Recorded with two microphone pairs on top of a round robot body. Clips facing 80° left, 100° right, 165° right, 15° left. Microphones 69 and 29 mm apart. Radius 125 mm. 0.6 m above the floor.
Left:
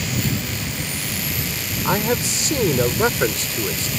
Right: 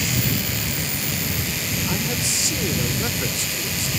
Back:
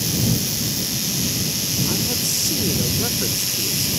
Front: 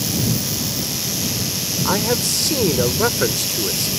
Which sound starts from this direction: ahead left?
A man speaking, at 1.9 s.